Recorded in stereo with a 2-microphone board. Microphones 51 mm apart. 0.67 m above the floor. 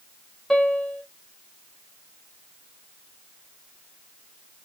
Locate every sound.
0.5 s a piano: 15° left (ahead or behind), 2 m